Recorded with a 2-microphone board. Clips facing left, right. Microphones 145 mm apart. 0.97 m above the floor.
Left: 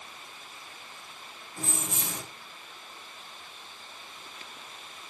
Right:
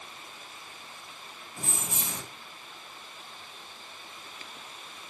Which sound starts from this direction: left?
Keys jangling, at 1.6 s.